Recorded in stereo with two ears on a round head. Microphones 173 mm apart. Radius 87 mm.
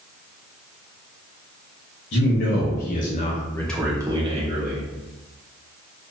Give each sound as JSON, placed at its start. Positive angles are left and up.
{"t": 2.1, "sound": "a man speaking", "side_deg": 65, "distance_m": 1.2}